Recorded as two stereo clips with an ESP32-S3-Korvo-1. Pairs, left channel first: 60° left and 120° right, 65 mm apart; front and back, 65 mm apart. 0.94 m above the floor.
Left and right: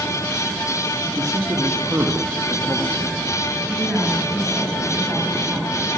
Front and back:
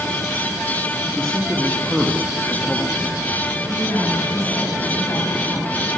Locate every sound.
1.1 s a man speaking: 85° right, 1.0 m
3.7 s a woman speaking: 40° right, 5.5 m